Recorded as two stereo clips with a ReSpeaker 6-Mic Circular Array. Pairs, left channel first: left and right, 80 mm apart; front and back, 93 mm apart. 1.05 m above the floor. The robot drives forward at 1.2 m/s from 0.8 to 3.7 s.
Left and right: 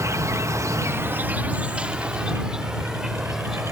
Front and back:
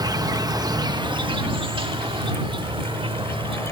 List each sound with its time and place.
0.0 s an insect: 140° right; by 3.7 s 170° right